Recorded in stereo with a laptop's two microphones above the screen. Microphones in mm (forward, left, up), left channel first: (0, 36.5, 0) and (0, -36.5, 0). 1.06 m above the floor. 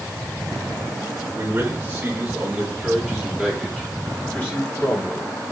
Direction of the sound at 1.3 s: 25° right (ahead or behind).